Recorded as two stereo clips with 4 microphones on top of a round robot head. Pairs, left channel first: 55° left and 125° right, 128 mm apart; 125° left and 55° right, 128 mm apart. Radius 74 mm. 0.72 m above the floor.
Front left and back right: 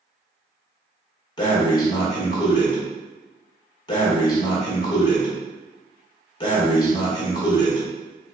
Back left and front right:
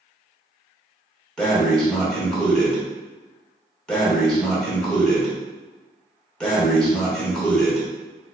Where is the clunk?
I don't hear a clunk.